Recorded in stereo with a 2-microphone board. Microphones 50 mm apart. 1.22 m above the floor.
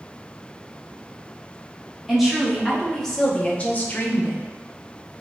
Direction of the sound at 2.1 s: 5° right (ahead or behind).